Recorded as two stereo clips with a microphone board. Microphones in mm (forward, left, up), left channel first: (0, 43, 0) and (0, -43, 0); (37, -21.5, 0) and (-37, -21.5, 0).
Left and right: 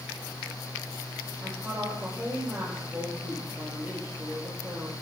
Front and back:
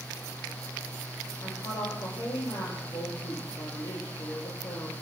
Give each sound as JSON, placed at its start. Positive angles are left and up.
{"t": 1.4, "sound": "a woman speaking", "azimuth_deg": -25, "distance_m": 5.5}